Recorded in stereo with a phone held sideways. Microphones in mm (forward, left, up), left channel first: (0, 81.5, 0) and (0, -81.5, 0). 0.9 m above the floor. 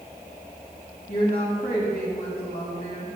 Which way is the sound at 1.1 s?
60° left (ahead or behind).